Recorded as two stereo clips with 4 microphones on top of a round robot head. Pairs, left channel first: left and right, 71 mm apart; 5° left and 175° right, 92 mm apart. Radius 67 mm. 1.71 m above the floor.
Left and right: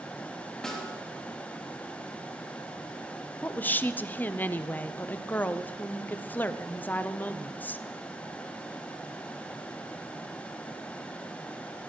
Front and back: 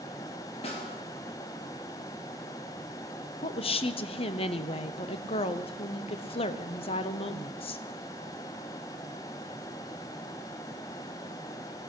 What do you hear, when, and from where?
0.6 s a snare drum: 10° left, 3.5 m
3.4 s a woman speaking: 25° left, 1.0 m